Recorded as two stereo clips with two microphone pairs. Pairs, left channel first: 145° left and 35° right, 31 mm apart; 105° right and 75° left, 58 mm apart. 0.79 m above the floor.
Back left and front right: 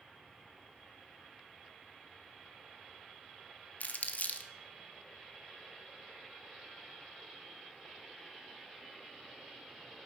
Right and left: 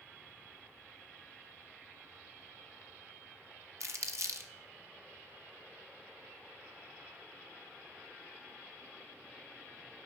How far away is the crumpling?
About 0.7 m.